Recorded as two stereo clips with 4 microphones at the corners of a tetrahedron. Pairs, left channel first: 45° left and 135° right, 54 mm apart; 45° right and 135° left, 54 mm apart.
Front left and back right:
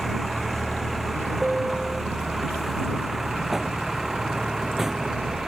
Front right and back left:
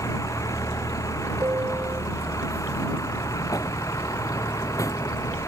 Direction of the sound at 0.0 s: 45° right.